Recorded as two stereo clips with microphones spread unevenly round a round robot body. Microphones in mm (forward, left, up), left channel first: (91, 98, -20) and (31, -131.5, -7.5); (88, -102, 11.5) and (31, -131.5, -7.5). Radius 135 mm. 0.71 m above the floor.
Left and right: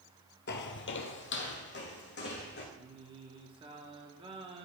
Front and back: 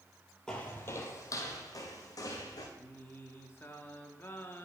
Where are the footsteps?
80° left, 0.8 m; by 2.6 s 30° left, 3 m.